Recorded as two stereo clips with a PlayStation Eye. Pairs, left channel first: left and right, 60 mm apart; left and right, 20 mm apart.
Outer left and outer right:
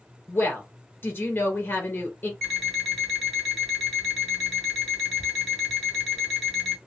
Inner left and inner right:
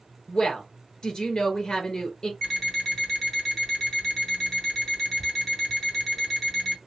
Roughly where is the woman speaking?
Left.